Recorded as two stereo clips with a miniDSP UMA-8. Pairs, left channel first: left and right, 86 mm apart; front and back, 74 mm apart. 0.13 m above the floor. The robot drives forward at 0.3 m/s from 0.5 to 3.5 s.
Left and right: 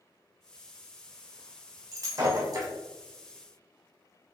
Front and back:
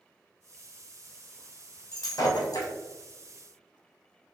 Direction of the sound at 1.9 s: 40° right.